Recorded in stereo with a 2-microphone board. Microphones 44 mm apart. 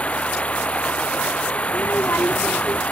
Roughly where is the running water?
Left.